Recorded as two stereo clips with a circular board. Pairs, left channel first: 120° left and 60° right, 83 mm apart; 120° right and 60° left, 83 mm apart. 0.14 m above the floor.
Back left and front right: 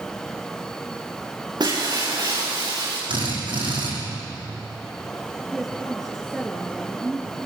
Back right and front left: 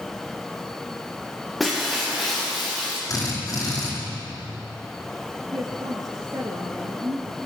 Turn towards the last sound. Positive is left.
turn(degrees=30)